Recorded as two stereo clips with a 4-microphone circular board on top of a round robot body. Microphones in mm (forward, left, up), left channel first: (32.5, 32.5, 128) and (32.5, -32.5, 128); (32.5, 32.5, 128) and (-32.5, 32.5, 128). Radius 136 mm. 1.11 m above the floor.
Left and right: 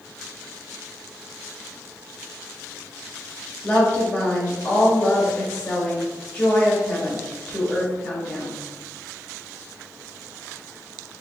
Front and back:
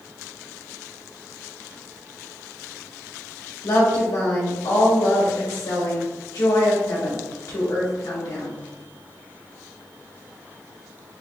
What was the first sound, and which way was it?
A woman speaking, 35° left.